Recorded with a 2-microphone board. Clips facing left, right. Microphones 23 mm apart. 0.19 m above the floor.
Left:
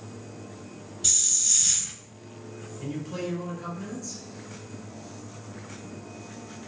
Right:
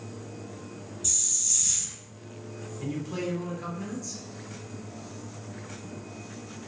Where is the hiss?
55° left (ahead or behind), 0.5 m.